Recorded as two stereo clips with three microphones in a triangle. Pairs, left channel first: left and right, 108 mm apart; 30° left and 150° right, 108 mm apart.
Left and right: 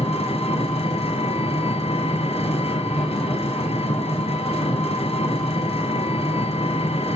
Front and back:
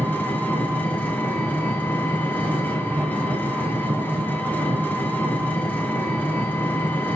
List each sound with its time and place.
0.0 s an engine running: 105° left, 3 m